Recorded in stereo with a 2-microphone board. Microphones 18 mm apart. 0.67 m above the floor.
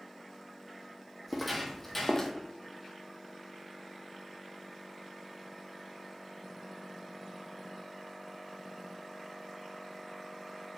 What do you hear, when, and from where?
1.3 s footsteps: centre (ahead or behind), 1.1 m; by 2.3 s 30° left (ahead or behind), 0.9 m